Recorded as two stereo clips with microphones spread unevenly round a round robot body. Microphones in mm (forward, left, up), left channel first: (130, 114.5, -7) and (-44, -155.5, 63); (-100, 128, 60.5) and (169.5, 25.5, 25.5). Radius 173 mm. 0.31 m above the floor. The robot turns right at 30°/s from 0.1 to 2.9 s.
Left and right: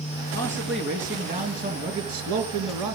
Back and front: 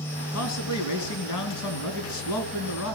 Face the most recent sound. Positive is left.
turn(degrees=-150)